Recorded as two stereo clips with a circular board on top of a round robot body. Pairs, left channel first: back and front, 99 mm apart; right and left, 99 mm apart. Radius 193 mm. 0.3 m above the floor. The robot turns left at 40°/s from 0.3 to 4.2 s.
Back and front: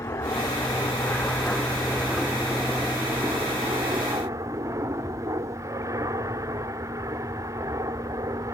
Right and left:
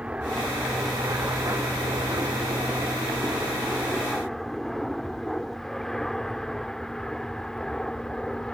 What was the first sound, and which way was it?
An aircraft, 160° left.